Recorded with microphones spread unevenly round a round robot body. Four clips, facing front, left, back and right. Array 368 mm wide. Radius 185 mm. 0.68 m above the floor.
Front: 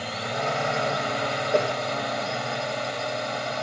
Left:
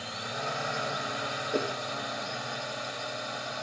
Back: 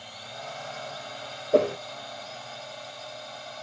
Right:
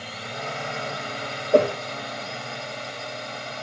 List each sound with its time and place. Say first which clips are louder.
0.0 s a drone: right 2 dB, front 13 dB; 10° right
1.5 s a whoosh: right 14 dB, back 3 dB; 90° right